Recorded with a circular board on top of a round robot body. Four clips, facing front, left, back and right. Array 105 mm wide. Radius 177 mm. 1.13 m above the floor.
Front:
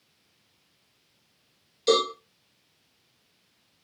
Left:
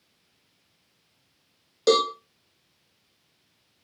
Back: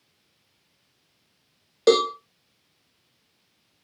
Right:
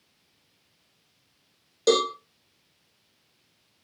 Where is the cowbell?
170° left, 0.5 m.